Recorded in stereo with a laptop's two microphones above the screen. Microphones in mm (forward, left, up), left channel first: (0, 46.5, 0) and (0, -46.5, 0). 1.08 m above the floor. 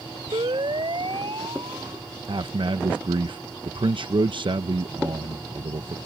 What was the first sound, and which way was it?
A siren, 65° right (ahead or behind).